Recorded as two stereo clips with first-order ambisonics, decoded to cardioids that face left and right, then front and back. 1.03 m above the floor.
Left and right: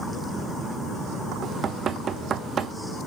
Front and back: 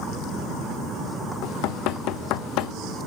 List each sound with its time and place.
1.4 s knocking: 25° right, 0.7 m